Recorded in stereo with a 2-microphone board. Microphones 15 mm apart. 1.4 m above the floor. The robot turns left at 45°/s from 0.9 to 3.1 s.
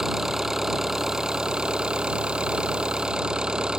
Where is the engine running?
30° right; by 3.8 s 125° right.